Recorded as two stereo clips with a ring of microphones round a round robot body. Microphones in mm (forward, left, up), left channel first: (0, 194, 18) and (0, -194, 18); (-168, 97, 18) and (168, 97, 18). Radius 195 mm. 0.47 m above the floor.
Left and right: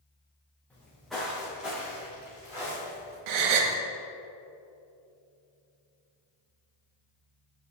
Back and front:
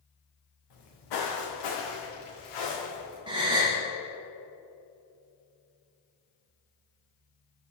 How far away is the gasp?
About 1.0 m.